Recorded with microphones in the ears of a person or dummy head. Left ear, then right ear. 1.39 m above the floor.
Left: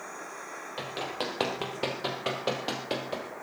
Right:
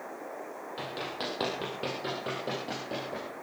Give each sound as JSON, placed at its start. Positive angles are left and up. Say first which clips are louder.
{"t": 0.8, "sound": "running footsteps", "louder": "left 2 dB", "side_deg": 20, "distance_m": 3.0}